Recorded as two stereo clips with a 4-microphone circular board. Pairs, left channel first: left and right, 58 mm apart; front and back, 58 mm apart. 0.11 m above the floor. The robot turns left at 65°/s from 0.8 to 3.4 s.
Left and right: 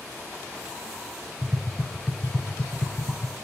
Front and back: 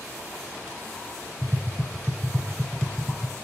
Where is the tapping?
145° right, 0.7 m; by 3.4 s 90° left, 0.7 m.